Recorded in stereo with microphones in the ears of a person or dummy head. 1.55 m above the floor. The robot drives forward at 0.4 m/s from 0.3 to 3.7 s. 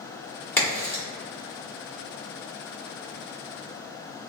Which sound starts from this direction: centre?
A crack, at 0.6 s.